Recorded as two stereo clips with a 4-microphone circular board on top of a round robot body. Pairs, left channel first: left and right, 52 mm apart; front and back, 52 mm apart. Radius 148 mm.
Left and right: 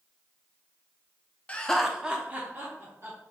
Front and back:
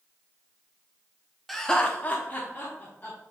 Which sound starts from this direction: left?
Laughter, at 1.5 s.